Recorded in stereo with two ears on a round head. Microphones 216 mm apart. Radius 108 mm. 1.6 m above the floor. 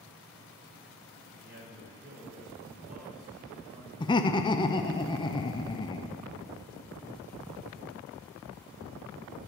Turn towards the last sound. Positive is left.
turn(degrees=20)  # may be behind; listen again after turning